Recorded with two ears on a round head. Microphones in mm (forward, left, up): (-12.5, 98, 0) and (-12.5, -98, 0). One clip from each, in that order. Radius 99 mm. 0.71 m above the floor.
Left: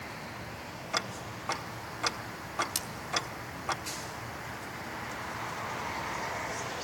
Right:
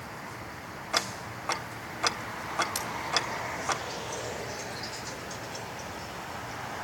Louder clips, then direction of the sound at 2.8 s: Right 2 dB; 10° left (ahead or behind).